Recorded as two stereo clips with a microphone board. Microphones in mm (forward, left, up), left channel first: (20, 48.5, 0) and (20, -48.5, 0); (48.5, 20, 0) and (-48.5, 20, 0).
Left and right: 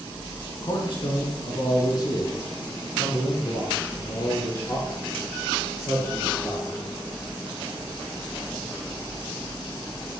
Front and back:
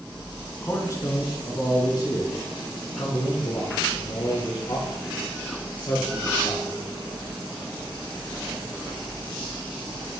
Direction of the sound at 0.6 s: 60° left.